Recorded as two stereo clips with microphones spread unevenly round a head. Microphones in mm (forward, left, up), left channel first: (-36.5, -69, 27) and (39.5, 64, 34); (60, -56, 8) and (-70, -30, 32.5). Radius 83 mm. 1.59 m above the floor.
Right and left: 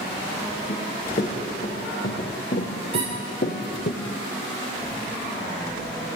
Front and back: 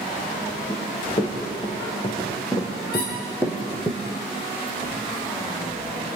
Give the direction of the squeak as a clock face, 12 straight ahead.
12 o'clock.